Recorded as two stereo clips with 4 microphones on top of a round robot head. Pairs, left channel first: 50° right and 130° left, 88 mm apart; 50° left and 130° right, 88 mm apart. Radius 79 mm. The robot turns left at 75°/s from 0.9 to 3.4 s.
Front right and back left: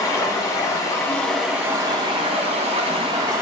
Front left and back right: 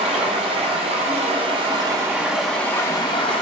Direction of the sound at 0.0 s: 105° right.